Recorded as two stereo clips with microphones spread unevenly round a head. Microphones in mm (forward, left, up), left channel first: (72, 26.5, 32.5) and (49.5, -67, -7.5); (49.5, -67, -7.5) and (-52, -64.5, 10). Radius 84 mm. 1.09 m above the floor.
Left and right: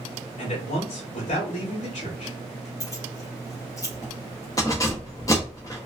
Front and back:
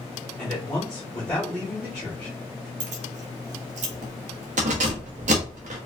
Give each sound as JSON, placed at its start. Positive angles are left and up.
{"t": 0.4, "sound": "a man speaking", "azimuth_deg": 75, "distance_m": 2.0}
{"t": 2.8, "sound": "keys jangling", "azimuth_deg": 150, "distance_m": 0.9}